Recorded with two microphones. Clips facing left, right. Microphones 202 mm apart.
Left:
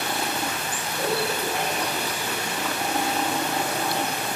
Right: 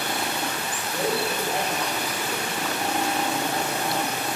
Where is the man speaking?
35° right (ahead or behind), 5 m.